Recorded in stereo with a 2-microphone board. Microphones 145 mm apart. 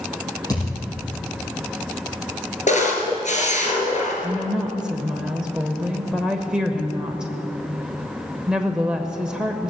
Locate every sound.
0.5 s a thud: 25° left (ahead or behind), 6 m
2.7 s a camera shutter: 55° left (ahead or behind), 3 m
4.2 s a woman speaking: 5° right (ahead or behind), 1.1 m